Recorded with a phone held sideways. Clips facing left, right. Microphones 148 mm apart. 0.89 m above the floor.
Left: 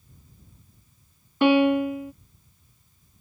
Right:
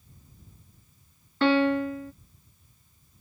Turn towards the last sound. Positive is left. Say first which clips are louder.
# left 4 dB
turn(degrees=15)  # may be behind; listen again after turning